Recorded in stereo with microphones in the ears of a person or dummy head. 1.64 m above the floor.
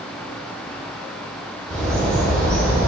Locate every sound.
1.7 s a bird: 5° left (ahead or behind), 1.7 m